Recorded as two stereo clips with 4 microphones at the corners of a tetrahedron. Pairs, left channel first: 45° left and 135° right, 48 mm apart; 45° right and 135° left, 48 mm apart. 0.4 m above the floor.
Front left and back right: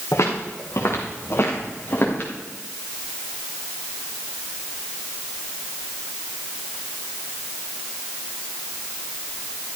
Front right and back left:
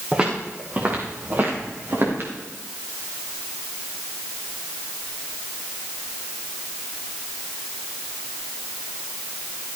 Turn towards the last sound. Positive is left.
turn(degrees=95)